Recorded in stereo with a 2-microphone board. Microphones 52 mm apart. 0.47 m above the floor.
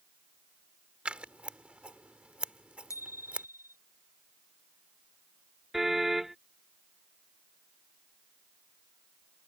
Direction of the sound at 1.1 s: 20° right (ahead or behind).